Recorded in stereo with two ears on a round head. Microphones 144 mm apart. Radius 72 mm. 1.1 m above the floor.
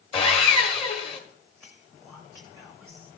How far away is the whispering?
About 1.0 m.